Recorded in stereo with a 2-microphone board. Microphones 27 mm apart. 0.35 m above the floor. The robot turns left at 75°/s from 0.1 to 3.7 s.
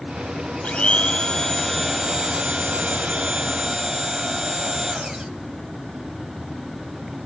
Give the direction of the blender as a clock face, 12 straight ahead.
9 o'clock.